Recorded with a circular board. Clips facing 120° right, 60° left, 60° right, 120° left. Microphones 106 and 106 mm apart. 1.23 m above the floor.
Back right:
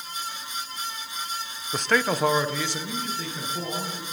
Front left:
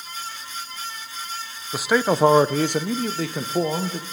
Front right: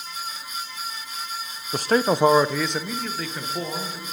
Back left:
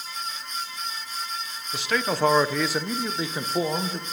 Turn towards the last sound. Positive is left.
turn(degrees=60)